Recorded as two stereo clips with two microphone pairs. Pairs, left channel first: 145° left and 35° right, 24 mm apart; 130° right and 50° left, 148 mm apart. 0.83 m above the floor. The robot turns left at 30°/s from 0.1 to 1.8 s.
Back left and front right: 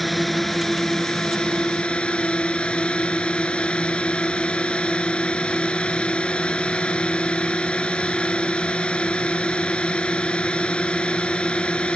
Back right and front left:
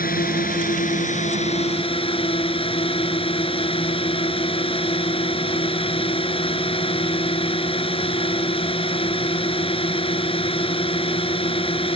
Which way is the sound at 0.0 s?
130° right.